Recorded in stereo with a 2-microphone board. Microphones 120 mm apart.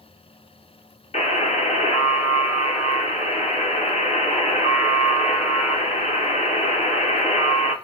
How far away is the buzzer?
About 0.6 m.